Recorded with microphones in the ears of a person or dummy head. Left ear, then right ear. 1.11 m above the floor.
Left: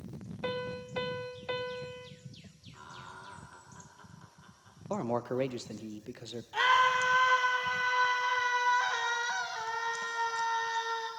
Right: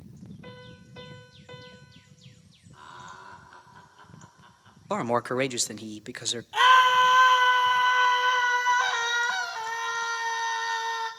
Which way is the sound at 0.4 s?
30° left (ahead or behind).